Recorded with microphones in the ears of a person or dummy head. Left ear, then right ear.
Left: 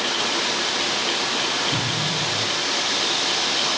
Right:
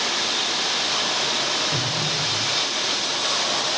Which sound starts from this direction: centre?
An explosion, at 1.7 s.